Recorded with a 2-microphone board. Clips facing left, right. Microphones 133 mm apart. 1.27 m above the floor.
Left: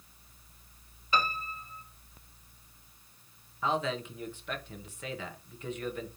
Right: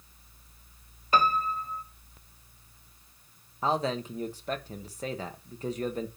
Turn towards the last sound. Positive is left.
turn(degrees=-40)  # may be behind; listen again after turning